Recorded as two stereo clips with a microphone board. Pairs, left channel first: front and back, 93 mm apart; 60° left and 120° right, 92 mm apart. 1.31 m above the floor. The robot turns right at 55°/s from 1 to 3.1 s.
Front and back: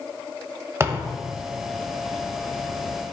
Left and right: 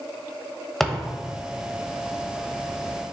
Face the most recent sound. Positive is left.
turn(degrees=-100)